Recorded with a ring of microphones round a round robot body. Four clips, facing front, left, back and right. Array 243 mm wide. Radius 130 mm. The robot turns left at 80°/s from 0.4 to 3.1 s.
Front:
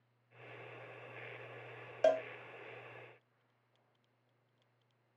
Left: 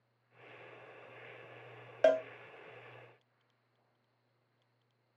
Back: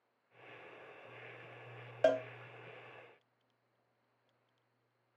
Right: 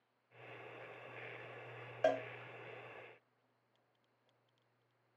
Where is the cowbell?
100° left, 0.6 m; by 2.2 s 85° left, 0.6 m.